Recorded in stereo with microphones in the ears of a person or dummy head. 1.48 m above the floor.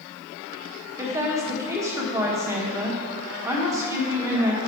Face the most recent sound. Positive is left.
turn(degrees=-20)  # may be behind; listen again after turning